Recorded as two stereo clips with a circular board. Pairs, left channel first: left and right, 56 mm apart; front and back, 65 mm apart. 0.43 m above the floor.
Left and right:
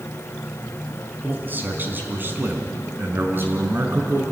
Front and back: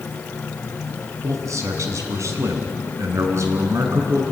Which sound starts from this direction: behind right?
A man speaking, at 1.2 s.